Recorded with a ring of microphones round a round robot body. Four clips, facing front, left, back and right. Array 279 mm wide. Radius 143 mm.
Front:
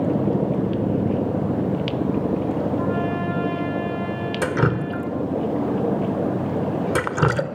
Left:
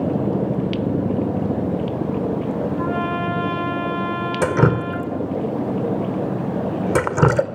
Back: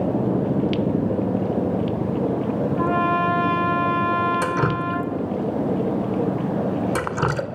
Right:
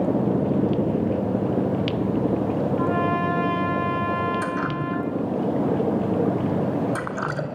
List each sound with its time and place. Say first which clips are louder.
2.8 s a trumpet: even, back 3 dB; 175° left, 8 m
4.4 s dripping: left 7 dB, even; 75° left, 1.6 m